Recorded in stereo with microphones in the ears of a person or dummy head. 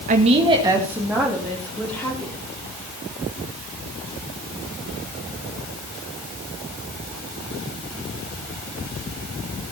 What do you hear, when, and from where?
0.1 s a woman speaking: 45° right (ahead or behind), 1.5 m; by 2.4 s 5° left (ahead or behind), 4 m